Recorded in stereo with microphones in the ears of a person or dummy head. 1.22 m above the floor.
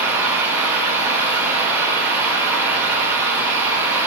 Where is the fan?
15° right (ahead or behind), 2.5 m.